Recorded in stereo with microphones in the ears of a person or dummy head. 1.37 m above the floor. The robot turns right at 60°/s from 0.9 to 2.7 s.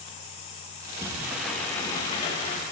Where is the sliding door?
35° right, 0.8 m; by 2.6 s 70° left, 0.8 m.